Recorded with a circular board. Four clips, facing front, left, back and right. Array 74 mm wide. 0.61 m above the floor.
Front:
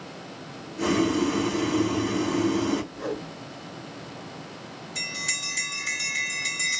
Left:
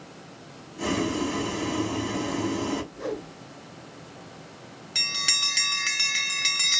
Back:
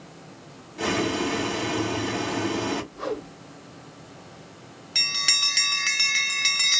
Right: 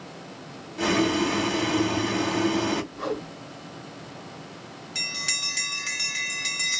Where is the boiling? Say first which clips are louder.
Right 4 dB, front 2 dB; 115° right, 2 m.